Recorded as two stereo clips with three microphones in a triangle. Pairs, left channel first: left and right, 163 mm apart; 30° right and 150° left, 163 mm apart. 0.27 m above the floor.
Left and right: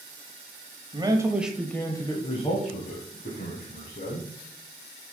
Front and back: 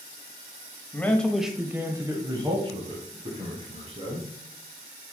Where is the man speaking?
95° right, 1.1 m; by 4.3 s 100° left, 2.5 m.